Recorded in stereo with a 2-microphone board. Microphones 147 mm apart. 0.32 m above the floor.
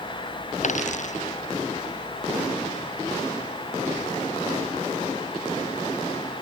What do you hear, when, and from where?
0.6 s a dropped coin: 55° left (ahead or behind)